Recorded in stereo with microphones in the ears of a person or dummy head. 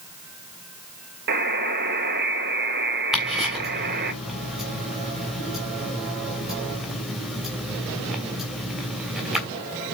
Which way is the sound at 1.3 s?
50° right (ahead or behind).